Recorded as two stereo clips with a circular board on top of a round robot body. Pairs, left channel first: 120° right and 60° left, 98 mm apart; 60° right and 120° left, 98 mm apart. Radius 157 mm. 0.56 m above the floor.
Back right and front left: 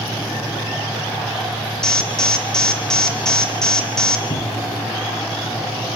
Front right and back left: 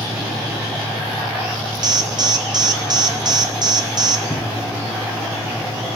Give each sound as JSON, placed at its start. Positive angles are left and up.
{"t": 1.8, "sound": "an alarm", "azimuth_deg": 160, "distance_m": 2.5}
{"t": 4.3, "sound": "a cupboard door", "azimuth_deg": -145, "distance_m": 3.0}